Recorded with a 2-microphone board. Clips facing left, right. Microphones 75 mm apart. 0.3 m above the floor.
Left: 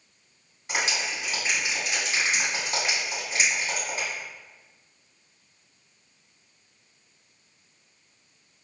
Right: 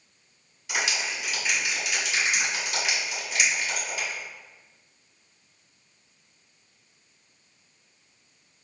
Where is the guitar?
I don't hear a guitar.